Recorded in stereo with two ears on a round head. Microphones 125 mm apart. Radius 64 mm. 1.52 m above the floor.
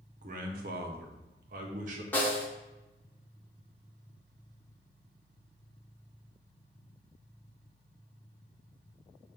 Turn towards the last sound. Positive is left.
turn(degrees=15)  # may be behind; listen again after turning